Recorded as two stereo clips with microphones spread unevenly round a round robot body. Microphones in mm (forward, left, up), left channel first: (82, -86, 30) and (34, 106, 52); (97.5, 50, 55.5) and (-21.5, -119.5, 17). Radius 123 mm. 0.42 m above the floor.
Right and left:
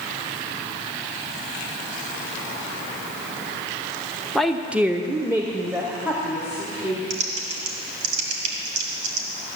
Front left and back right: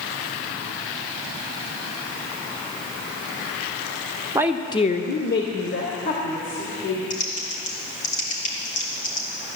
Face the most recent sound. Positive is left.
turn(degrees=115)